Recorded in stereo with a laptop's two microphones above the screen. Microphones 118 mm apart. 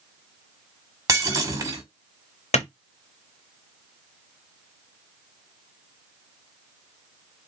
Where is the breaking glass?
30° right (ahead or behind), 1.7 m.